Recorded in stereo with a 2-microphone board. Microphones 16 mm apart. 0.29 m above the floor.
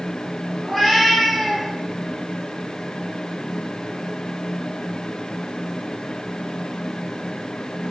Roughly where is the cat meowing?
Centre.